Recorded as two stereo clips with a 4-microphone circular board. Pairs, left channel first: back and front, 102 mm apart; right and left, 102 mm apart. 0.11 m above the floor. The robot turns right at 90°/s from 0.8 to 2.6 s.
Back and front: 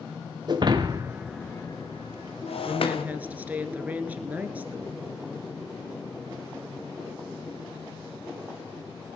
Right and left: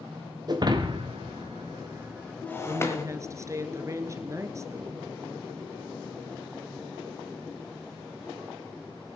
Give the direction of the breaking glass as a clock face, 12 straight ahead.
10 o'clock.